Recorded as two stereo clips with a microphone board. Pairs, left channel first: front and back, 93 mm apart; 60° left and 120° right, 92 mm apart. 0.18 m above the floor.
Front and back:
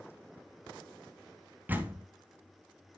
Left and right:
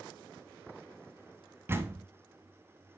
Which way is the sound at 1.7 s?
140° right.